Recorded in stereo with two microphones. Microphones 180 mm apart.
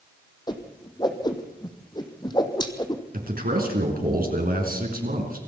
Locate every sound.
0.5 s a whoosh: 25° left (ahead or behind), 2.0 m
3.1 s a man speaking: 55° right (ahead or behind), 4 m